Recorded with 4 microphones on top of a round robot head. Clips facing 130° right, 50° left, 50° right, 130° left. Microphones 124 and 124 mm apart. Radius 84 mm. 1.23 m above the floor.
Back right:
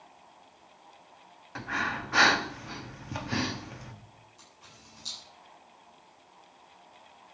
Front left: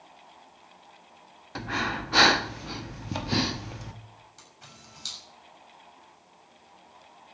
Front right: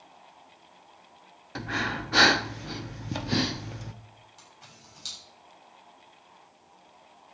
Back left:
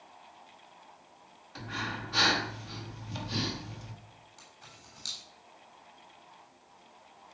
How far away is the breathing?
About 1.0 m.